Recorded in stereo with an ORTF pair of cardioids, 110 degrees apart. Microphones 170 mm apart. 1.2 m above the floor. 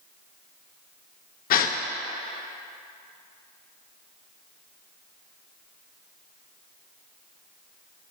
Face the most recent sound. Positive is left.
turn(degrees=60)